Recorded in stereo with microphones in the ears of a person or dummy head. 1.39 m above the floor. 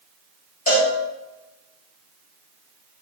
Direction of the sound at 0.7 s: 45° left (ahead or behind).